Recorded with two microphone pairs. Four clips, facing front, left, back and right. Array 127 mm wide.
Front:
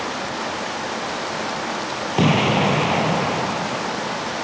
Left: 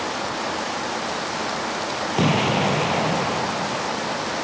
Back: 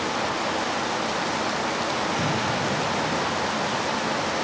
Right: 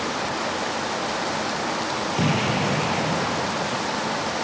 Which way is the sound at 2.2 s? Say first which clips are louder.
Left 4 dB, front 7 dB; 30° left.